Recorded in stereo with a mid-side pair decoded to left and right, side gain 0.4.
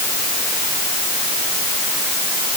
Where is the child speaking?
I don't hear a child speaking.